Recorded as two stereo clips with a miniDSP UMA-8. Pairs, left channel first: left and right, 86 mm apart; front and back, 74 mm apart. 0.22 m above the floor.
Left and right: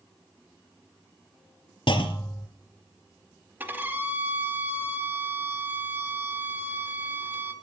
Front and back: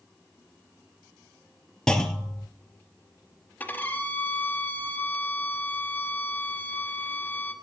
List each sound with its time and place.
1.9 s a clunk: 80° left, 0.9 m
3.6 s a violin: 45° right, 0.9 m